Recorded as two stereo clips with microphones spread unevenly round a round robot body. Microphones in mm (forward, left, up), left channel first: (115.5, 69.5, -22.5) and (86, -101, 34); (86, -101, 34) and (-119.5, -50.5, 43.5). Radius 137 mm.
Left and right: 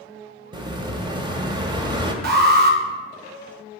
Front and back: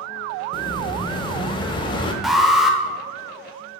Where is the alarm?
100° right, 0.8 m.